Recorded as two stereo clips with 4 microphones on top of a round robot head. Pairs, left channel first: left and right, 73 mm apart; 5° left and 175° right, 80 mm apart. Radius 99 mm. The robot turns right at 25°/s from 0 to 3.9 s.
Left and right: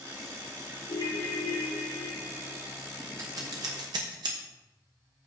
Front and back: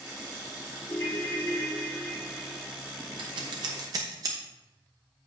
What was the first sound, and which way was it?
A ringtone, 55° left.